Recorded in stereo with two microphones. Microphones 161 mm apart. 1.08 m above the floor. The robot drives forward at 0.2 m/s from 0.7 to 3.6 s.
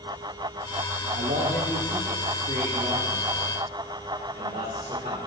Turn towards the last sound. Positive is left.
turn(degrees=-45)  # may be behind; listen again after turning